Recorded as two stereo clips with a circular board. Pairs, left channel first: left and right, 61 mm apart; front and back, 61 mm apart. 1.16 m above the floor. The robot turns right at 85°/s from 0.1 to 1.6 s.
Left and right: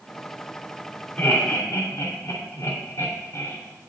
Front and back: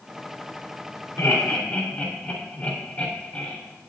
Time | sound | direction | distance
1.2 | laughter | 25° left | 2.5 m